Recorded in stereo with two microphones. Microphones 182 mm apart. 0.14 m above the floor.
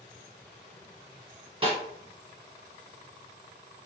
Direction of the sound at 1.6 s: 30° right (ahead or behind).